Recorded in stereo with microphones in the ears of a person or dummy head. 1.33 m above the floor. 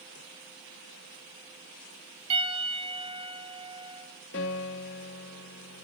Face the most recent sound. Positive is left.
turn(degrees=70)  # may be behind; listen again after turning